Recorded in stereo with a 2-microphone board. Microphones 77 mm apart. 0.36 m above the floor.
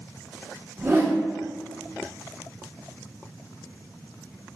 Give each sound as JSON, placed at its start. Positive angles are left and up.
{"t": 0.8, "sound": "a whoosh", "side_deg": -30, "distance_m": 0.9}